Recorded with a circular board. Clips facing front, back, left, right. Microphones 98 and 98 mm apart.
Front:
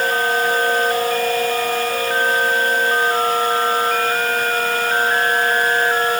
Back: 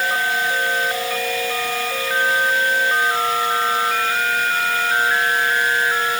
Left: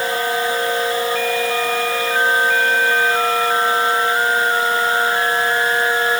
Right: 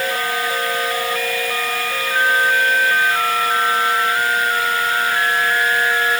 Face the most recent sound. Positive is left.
No sound to turn to.